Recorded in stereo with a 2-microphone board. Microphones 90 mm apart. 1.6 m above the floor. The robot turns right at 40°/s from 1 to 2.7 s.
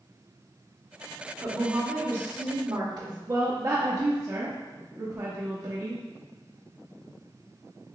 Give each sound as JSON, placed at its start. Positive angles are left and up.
{"t": 1.4, "sound": "a woman speaking", "azimuth_deg": 180, "distance_m": 1.3}
{"t": 3.3, "sound": "a woman speaking", "side_deg": -40, "distance_m": 0.7}